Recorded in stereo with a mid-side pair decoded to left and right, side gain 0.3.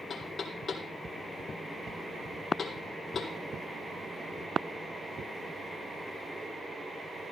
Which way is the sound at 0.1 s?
60° left.